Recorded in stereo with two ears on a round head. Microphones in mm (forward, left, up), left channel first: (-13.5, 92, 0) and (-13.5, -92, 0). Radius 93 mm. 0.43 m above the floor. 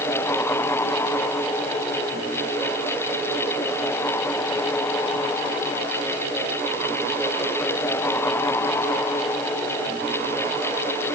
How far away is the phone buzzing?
I don't hear a phone buzzing.